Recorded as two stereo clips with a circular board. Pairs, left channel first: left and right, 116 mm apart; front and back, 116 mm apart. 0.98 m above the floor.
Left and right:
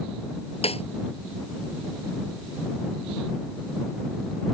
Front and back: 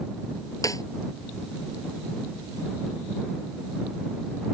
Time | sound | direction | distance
0.6 | a snare drum | 60° left | ?